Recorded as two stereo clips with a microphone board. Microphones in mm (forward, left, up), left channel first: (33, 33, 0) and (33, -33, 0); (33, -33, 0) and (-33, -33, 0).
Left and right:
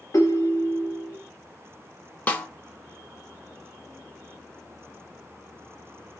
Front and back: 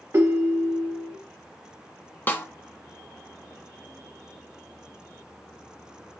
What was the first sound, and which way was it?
A ringtone, 130° left.